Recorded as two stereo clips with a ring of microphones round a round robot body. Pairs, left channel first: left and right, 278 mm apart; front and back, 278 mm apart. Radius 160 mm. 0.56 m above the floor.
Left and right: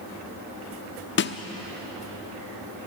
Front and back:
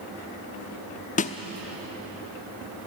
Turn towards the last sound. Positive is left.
turn(degrees=55)